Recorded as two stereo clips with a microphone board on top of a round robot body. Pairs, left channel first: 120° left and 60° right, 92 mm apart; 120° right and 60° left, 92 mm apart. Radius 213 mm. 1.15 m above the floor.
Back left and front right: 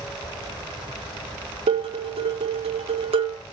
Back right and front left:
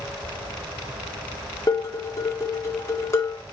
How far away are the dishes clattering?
About 2.5 m.